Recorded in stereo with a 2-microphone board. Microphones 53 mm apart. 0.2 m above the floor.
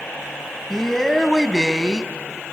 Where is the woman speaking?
5° left (ahead or behind), 1.1 m.